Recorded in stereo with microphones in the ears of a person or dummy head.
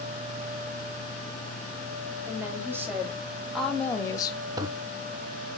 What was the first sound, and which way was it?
A woman speaking, 15° right (ahead or behind).